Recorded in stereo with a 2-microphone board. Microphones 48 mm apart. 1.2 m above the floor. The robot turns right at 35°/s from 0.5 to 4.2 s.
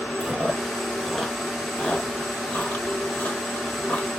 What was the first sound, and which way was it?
Chewing, 5° right (ahead or behind).